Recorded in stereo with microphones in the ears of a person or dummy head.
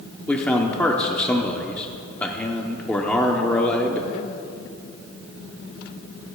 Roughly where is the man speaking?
Centre.